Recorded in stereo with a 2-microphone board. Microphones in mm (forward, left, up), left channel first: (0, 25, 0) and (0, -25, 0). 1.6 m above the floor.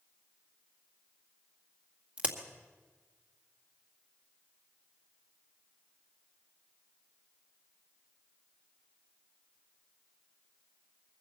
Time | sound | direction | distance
2.2 | a crack | 25° right (ahead or behind) | 1.9 m